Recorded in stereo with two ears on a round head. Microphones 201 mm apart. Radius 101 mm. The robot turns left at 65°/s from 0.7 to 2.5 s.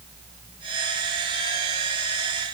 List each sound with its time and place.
Only background noise.